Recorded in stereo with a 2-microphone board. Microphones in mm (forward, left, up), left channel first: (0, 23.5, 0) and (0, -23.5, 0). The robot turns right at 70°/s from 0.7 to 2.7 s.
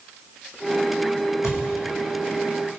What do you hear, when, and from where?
1.4 s a thud: 75° left (ahead or behind), 1.3 m; by 1.6 s 60° left (ahead or behind), 1.3 m